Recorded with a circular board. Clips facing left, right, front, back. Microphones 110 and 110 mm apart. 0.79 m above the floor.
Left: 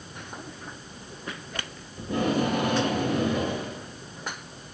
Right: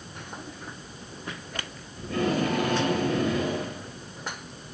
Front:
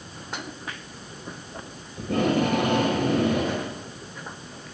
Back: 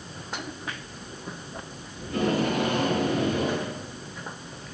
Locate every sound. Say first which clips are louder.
2.0 s tape being pulled: left 1 dB, front 3 dB; 25° left, 6 m